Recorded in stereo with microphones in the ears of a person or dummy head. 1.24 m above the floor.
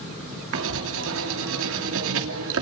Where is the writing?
80° right, 2.5 m.